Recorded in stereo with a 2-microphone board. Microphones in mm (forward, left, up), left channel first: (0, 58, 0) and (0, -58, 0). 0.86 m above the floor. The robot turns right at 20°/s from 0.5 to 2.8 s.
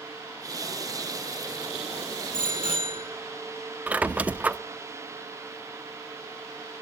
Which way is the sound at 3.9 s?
10° right (ahead or behind).